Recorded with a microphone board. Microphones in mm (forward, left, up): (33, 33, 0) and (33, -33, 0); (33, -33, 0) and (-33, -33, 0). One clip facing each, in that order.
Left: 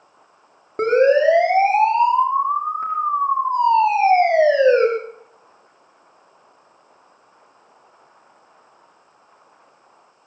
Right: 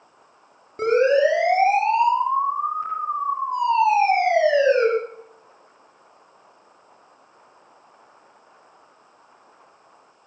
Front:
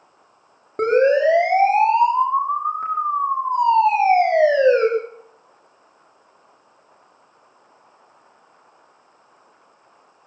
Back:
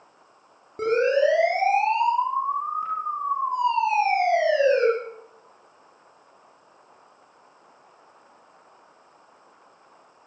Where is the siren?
40° left, 9.5 m; by 4.9 s 45° left, 7 m.